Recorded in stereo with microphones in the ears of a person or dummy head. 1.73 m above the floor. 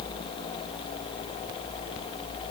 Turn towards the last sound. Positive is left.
No sound to turn to.